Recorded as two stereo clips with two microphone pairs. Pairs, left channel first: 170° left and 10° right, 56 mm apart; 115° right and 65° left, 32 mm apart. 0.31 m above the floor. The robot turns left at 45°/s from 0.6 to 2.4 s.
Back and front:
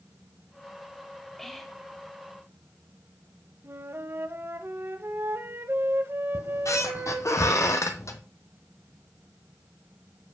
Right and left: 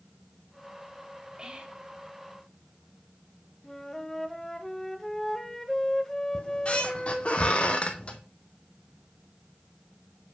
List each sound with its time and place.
1.4 s whispering: 95° left, 1.0 m; by 1.8 s 75° left, 1.0 m
3.6 s a flute: 40° right, 0.5 m
6.3 s a squeak: 170° right, 0.8 m